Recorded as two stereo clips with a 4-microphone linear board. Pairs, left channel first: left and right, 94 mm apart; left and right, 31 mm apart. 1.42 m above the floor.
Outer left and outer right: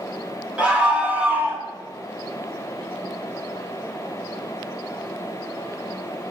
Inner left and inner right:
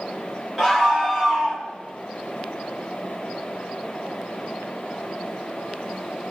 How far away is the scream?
About 2.5 m.